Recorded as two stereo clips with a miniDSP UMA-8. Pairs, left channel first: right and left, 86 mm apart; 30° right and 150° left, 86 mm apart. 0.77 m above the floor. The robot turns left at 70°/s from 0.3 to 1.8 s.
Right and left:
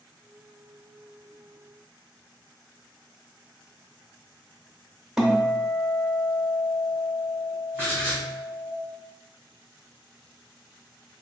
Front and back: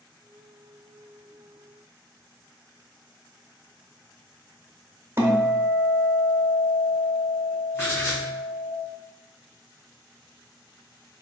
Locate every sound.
5.2 s a guitar: 170° left, 0.8 m
7.7 s writing: 30° left, 1.9 m